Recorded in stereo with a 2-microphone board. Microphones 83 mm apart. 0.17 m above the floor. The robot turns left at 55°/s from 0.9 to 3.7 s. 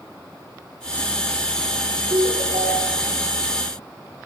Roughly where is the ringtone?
Ahead right.